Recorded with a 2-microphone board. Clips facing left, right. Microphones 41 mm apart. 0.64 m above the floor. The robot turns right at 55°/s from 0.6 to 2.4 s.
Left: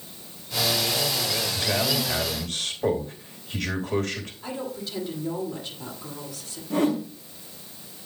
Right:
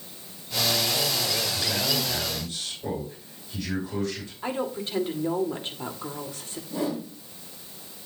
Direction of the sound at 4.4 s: 40° right (ahead or behind).